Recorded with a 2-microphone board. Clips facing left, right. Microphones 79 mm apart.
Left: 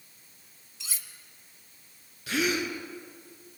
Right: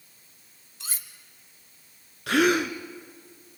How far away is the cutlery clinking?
About 1.5 m.